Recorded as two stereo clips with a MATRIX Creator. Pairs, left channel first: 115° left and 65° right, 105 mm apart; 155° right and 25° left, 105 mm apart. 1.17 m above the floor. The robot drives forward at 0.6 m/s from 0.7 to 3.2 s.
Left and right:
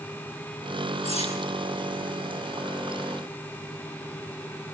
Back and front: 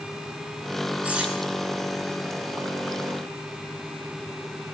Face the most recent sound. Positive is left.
turn(degrees=110)